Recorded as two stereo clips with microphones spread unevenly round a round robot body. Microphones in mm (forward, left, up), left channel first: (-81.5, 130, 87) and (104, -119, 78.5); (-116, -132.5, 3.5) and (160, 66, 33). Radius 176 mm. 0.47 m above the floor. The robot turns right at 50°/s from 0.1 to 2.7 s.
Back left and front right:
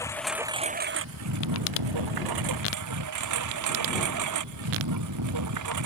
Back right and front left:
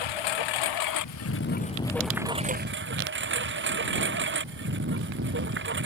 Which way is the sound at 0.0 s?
150° right.